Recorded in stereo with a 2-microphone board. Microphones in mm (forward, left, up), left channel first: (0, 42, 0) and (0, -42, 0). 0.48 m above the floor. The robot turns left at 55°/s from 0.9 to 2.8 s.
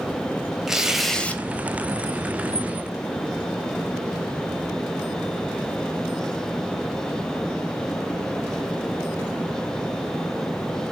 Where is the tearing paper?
5° right (ahead or behind), 0.7 m; by 1.4 s 20° left (ahead or behind), 0.7 m.